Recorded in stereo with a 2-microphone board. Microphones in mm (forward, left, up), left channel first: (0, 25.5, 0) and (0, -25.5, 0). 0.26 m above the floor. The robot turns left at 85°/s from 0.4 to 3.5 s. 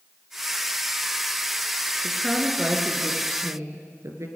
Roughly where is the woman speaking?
Ahead left.